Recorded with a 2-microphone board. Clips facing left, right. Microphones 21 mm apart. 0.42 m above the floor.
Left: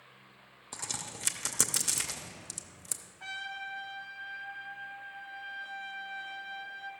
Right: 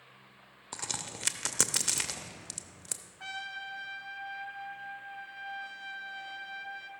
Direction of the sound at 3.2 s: 25° right (ahead or behind).